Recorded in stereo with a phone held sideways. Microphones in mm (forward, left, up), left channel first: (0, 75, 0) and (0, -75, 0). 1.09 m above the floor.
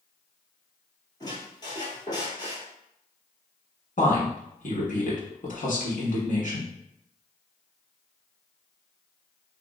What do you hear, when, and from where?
1.2 s a squeak: 30° left (ahead or behind), 1.2 m
4.0 s a woman speaking: 60° left (ahead or behind), 1.2 m